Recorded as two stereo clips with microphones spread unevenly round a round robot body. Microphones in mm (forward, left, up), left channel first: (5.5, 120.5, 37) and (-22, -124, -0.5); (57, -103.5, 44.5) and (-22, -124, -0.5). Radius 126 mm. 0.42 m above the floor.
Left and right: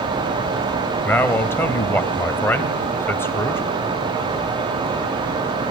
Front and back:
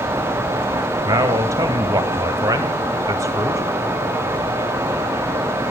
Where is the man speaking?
170° left, 2 m.